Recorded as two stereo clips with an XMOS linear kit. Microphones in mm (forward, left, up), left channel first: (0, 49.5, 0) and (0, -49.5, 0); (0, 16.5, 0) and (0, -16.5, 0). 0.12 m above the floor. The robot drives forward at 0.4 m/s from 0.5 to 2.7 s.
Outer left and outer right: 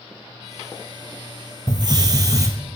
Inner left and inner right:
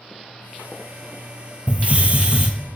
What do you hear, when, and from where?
1.7 s a hiss: 50° right (ahead or behind), 0.6 m; by 2.5 s 35° right (ahead or behind), 0.8 m